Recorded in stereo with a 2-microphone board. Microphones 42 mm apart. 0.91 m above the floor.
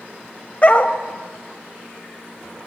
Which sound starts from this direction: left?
A dog barking, at 0.6 s.